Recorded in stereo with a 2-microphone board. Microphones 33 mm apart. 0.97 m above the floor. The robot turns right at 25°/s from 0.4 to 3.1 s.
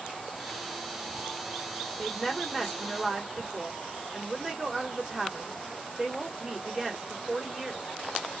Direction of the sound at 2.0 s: 10° left (ahead or behind).